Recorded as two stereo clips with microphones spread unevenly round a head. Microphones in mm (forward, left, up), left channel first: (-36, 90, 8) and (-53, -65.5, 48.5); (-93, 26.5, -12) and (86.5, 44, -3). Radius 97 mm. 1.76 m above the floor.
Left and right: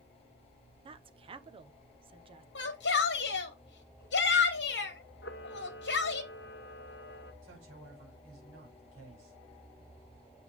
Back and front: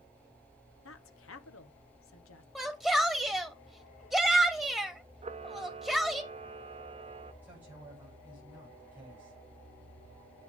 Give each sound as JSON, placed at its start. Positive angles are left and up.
{"t": 0.8, "sound": "a woman speaking", "azimuth_deg": -150, "distance_m": 1.0}
{"t": 2.5, "sound": "a shout", "azimuth_deg": 95, "distance_m": 1.2}
{"t": 5.2, "sound": "a camera shutter", "azimuth_deg": 50, "distance_m": 0.8}
{"t": 7.4, "sound": "a man speaking", "azimuth_deg": -75, "distance_m": 7.0}